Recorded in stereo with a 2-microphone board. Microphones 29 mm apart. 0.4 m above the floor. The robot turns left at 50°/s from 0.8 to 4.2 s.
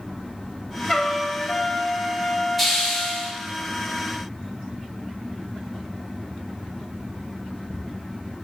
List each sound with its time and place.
0.9 s a trumpet: 165° left, 0.9 m; by 3.4 s 40° left, 0.9 m
2.6 s a hiss: centre (ahead or behind), 1.2 m; by 3.3 s 10° left (ahead or behind), 1.2 m